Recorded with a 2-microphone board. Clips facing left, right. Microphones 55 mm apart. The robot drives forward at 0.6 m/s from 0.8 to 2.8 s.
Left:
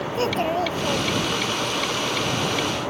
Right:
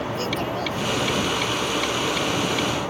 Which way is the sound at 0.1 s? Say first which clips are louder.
Left 8 dB; 35° left (ahead or behind).